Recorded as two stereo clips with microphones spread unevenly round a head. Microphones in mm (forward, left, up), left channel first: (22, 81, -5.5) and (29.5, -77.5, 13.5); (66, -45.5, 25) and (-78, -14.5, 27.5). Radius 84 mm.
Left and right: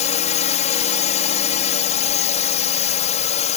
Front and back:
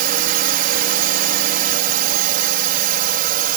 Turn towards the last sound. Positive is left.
turn(degrees=140)